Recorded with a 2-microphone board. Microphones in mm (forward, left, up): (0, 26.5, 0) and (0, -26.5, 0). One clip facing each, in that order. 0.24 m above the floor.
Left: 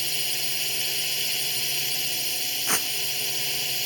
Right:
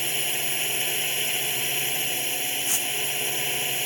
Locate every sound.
0.0 s a drone: 25° right (ahead or behind)
2.7 s tearing paper: 45° left (ahead or behind)